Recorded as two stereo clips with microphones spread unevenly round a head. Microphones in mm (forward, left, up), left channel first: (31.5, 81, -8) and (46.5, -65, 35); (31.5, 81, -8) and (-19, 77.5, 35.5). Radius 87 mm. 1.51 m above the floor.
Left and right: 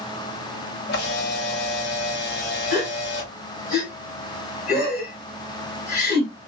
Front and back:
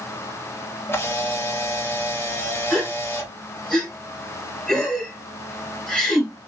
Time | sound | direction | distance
0.9 | a camera shutter | 80° left | 1.0 m
2.7 | a gasp | 135° left | 1.6 m